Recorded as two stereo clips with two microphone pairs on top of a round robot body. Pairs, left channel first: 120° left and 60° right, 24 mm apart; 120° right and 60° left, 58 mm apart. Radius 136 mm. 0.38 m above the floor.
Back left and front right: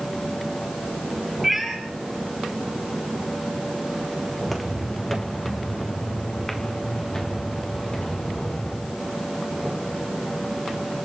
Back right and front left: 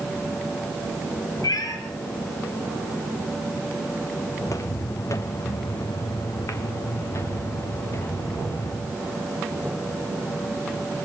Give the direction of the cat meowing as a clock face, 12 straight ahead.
5 o'clock.